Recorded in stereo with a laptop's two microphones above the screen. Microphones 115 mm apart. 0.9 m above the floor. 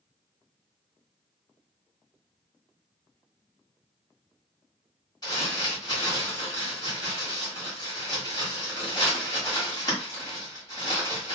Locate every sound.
5.2 s crumpling: 40° left (ahead or behind), 1.3 m